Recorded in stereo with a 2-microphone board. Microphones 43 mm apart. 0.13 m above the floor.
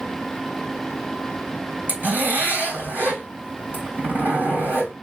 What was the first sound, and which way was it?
A zipper, 45° right (ahead or behind).